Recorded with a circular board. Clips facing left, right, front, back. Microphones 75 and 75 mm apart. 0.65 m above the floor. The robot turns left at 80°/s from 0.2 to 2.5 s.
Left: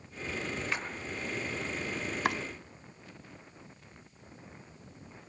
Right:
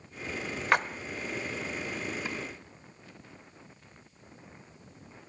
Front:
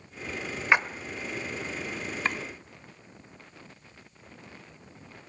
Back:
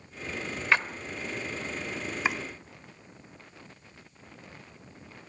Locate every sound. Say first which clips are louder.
0.7 s a splash: right 14 dB, front 2 dB; 70° right, 0.9 m; by 0.9 s 80° right, 0.9 m
2.2 s chopping: left 6 dB, back 1 dB; 100° left, 0.5 m; by 2.4 s 90° left, 0.5 m